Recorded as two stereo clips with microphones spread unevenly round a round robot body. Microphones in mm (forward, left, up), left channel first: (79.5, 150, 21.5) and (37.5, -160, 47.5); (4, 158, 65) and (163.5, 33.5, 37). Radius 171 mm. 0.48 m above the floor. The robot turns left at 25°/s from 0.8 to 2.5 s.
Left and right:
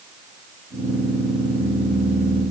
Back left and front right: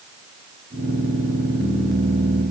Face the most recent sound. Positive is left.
No sound to turn to.